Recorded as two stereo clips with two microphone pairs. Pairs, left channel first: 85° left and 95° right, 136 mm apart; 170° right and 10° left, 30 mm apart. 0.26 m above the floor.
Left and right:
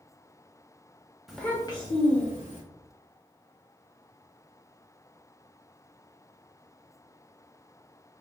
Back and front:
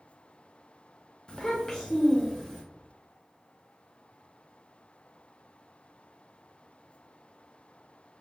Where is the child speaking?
175° right, 0.6 m; by 2.6 s 85° left, 1.1 m.